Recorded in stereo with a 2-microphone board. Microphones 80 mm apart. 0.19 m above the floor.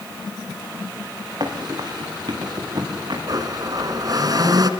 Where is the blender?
55° right (ahead or behind), 2 m.